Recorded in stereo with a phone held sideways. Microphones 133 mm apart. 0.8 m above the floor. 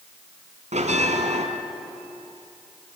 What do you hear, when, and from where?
0.7 s a bell: 70° right (ahead or behind), 2.5 m